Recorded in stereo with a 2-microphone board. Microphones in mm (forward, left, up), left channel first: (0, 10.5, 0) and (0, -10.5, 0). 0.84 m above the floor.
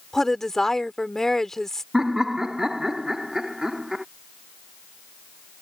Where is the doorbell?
No doorbell in this recording.